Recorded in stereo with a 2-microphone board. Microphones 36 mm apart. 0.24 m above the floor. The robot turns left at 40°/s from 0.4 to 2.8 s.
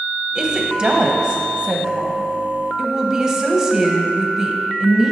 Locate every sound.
0.3 s a woman speaking: 50° right, 1.1 m; by 5.1 s 145° right, 1.1 m